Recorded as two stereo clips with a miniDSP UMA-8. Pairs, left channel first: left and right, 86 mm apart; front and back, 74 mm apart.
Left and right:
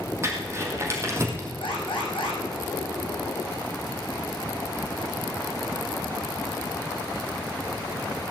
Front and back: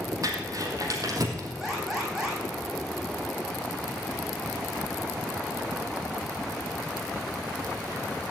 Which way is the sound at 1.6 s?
90° left.